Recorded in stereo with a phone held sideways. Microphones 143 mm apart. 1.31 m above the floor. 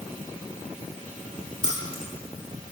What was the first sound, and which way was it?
Keys jangling, 70° left (ahead or behind).